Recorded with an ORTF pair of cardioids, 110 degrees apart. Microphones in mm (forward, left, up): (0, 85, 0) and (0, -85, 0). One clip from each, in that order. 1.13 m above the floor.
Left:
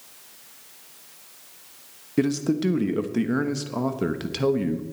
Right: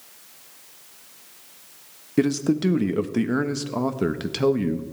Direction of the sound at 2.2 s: 10° right.